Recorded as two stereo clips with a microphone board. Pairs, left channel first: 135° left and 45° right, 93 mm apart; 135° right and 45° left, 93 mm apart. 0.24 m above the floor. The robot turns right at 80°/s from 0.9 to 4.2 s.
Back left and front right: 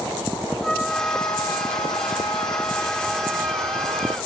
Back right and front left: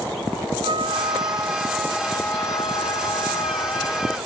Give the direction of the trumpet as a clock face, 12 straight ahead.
10 o'clock.